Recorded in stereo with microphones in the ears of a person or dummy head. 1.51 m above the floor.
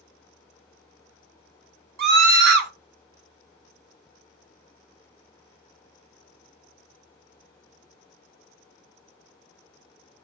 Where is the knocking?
No knocking in this recording.